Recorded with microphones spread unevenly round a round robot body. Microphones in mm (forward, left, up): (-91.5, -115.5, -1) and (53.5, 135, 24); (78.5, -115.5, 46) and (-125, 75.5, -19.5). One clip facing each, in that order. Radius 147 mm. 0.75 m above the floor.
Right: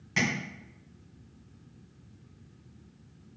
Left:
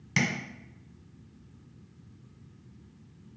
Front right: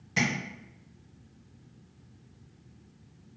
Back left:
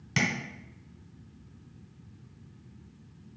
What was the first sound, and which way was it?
Tapping, 115° left.